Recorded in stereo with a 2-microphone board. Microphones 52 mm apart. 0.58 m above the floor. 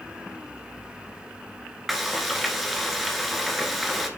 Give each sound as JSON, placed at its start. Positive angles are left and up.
{"t": 1.9, "sound": "frying", "side_deg": 0, "distance_m": 1.7}